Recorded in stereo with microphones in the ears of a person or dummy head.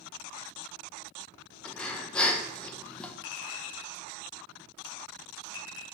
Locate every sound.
1.6 s breathing: 10° left (ahead or behind), 1.0 m
3.2 s a clink: 65° left (ahead or behind), 1.5 m